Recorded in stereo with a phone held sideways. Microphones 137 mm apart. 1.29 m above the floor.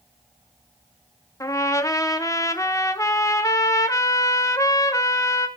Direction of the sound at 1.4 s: 20° left (ahead or behind).